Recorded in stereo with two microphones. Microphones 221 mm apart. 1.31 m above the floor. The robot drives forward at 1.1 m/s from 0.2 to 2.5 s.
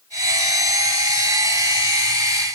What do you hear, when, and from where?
Only background noise.